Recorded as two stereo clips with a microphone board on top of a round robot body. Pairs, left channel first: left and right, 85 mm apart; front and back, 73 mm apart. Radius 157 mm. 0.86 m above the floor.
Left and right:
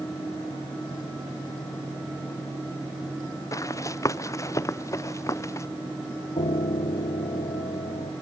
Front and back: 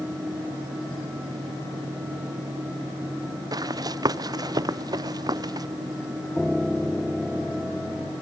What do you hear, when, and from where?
3.5 s running footsteps: 145° left
6.4 s a piano: 90° left